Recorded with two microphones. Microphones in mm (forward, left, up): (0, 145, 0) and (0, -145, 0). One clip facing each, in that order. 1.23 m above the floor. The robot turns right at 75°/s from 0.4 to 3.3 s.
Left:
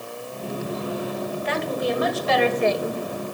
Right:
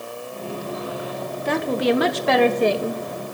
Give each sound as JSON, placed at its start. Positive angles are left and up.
{"t": 1.4, "sound": "a woman speaking", "azimuth_deg": -130, "distance_m": 1.5}